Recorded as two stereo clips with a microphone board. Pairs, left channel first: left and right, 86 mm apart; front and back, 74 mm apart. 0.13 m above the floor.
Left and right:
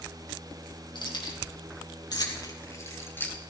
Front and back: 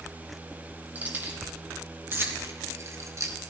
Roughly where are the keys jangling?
Behind left.